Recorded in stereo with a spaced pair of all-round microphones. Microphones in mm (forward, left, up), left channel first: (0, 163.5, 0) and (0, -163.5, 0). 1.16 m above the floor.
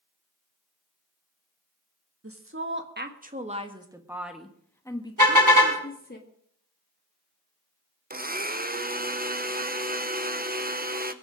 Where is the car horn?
70° right (ahead or behind), 5 m.